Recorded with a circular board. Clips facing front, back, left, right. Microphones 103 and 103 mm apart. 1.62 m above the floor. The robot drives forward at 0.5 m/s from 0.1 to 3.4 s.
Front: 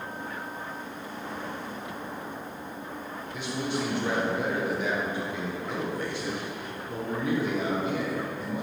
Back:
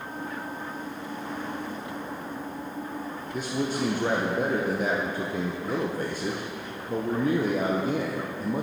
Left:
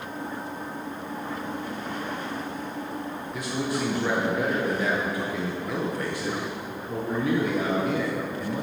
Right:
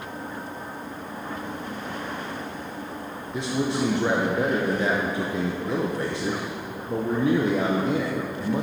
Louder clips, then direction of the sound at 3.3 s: Back 2 dB, right 4 dB; 145° right.